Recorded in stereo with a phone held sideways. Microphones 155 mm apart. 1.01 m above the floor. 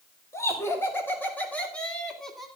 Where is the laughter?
20° left (ahead or behind), 4 m; by 2.5 s centre (ahead or behind), 3 m.